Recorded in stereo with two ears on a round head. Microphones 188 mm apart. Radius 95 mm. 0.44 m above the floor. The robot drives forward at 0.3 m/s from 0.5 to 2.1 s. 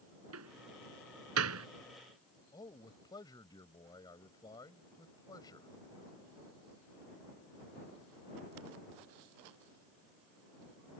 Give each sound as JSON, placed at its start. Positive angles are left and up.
{"t": 0.3, "sound": "a door slam", "side_deg": -80}
{"t": 2.5, "sound": "a man speaking", "side_deg": 20}